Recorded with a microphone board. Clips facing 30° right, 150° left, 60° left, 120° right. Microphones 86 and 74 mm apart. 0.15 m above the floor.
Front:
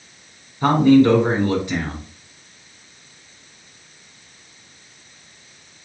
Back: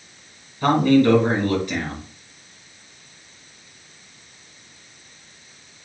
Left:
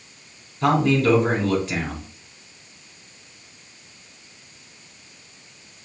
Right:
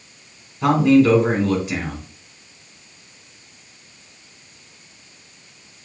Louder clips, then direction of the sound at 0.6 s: Front 3 dB, right 5 dB; 45° right.